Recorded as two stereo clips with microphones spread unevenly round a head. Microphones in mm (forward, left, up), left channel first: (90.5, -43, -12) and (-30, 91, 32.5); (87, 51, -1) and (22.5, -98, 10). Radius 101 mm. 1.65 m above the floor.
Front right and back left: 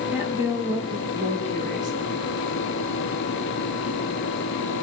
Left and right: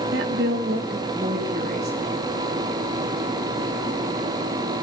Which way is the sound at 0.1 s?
145° right.